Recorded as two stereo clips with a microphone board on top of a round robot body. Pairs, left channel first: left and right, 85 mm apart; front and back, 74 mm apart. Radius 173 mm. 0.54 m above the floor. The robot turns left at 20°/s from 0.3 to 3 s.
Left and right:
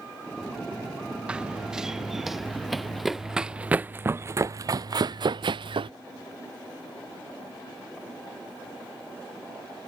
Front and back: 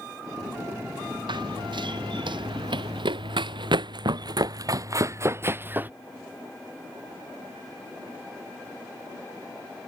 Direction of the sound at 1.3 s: 170° right.